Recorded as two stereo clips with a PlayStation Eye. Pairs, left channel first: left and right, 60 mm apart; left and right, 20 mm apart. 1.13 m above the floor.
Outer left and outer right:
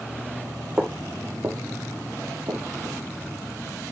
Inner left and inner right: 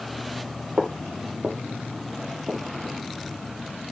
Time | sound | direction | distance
0.8 | footsteps | 25° right (ahead or behind) | 1.5 m